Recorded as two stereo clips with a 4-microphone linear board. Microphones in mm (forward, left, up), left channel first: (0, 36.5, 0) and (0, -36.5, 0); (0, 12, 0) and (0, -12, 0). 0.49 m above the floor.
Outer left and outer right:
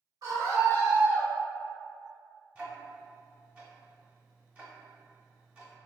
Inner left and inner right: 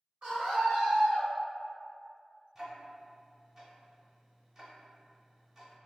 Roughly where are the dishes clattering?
I don't hear dishes clattering.